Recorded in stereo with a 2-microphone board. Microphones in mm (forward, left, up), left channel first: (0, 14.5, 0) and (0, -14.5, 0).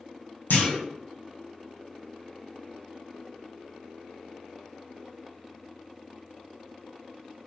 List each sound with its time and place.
0.5 s a clunk: 75° left (ahead or behind), 0.6 m